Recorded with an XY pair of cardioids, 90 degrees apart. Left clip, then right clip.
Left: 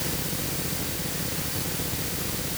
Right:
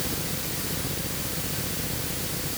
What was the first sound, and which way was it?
Only background noise.